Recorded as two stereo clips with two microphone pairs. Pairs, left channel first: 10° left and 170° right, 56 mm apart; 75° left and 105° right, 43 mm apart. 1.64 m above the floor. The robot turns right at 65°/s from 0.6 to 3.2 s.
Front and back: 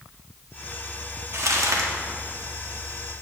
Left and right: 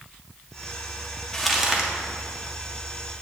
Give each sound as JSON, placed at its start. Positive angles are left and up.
{"t": 1.3, "sound": "crumpling", "azimuth_deg": 150, "distance_m": 1.2}